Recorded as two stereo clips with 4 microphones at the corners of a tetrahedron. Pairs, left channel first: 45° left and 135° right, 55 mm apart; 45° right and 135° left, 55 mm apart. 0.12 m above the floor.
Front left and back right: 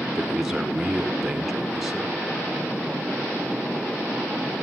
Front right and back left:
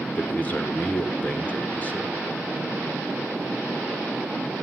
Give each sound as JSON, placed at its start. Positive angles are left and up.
{"t": 0.1, "sound": "a man speaking", "azimuth_deg": -60, "distance_m": 1.8}